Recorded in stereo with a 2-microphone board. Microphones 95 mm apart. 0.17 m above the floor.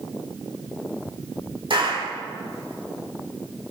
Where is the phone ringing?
No phone ringing in this recording.